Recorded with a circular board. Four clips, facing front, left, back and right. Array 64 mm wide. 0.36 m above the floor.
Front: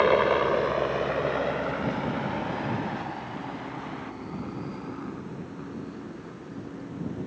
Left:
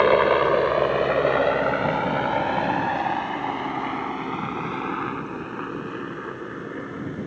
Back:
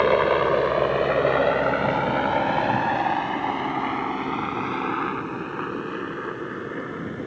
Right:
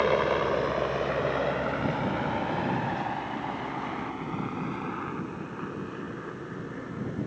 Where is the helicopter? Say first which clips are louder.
Left 7 dB, back 2 dB; 95° left; by 7.3 s 160° left.